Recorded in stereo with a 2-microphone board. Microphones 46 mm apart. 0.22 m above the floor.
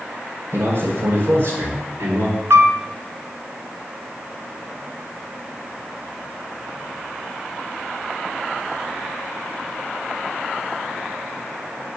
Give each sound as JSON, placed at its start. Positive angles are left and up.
{"t": 0.5, "sound": "a man speaking", "side_deg": -65, "distance_m": 3.5}
{"t": 2.5, "sound": "a piano", "side_deg": -80, "distance_m": 0.5}